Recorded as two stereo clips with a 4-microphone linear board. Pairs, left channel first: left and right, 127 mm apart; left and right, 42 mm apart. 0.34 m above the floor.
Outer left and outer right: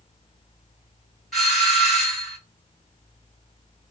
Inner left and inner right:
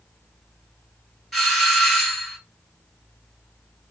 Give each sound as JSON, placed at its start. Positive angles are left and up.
{"t": 1.3, "sound": "a doorbell", "side_deg": 0, "distance_m": 2.0}